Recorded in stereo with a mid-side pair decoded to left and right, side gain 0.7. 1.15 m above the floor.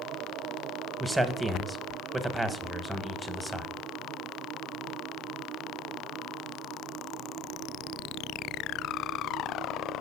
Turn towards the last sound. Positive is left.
turn(degrees=-5)